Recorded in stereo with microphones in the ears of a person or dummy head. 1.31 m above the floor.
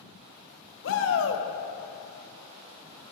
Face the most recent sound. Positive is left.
turn(degrees=70)  # may be behind; listen again after turning